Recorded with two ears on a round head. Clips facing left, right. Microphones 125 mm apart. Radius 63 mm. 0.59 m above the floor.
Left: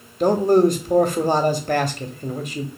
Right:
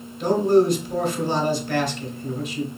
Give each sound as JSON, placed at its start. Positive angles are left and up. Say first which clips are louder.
{"t": 0.2, "sound": "a man speaking", "louder": "left 2 dB", "side_deg": 40, "distance_m": 0.8}